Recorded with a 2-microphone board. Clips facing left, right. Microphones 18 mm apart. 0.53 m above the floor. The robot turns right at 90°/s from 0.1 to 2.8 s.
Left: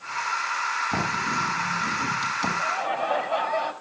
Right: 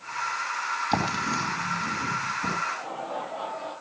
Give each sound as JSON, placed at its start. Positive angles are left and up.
{"t": 0.9, "sound": "writing", "side_deg": -50, "distance_m": 4.0}
{"t": 2.6, "sound": "laughter", "side_deg": 70, "distance_m": 4.5}